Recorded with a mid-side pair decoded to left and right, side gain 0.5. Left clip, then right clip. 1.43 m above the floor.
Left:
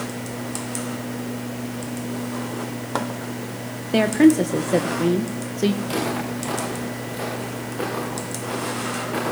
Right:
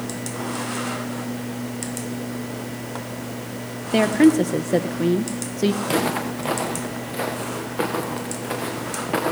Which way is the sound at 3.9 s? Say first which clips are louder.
Even; 5° right.